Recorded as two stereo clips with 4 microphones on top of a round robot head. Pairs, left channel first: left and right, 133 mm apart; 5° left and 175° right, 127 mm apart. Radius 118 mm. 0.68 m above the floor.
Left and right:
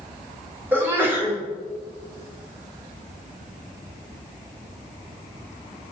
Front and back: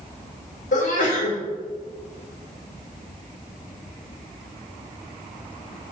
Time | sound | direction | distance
0.7 | a sneeze | 15° right | 3.5 m